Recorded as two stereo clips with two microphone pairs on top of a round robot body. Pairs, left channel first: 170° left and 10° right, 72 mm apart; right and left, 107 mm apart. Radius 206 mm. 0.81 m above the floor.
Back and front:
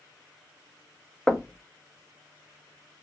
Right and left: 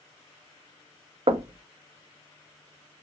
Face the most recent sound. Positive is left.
turn(degrees=80)